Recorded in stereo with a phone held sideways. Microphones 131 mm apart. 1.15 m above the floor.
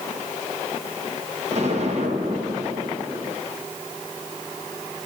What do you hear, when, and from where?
1.5 s an explosion: 55° right (ahead or behind), 1.5 m